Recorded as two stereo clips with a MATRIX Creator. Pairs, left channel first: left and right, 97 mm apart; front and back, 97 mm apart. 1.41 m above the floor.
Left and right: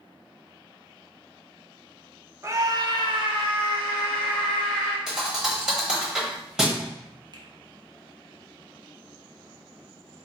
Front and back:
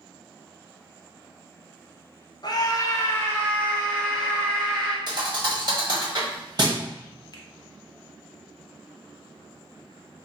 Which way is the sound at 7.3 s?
45° right.